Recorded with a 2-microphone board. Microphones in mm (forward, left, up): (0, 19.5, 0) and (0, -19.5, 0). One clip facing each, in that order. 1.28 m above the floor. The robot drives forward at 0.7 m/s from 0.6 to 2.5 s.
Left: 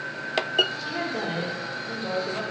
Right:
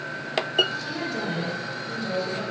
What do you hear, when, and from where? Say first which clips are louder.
0.8 s a woman speaking: even; 25° left (ahead or behind), 4 m; by 2.4 s 35° left (ahead or behind), 3 m